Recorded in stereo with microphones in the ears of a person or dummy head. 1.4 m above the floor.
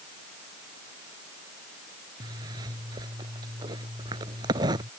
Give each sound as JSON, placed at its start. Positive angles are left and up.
{"t": 2.2, "sound": "a zipper", "side_deg": -25}